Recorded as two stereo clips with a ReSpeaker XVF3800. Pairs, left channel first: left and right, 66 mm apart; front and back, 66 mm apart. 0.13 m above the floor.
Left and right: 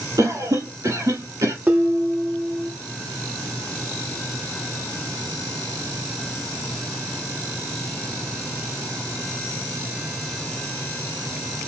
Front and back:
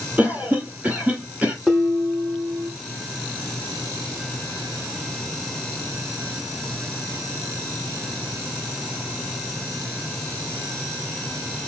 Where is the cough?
110° right, 3 m.